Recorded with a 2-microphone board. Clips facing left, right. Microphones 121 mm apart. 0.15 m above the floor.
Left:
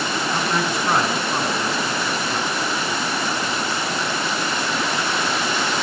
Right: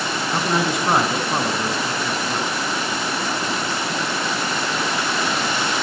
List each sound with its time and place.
0.3 s a man speaking: 20° right (ahead or behind), 1.3 m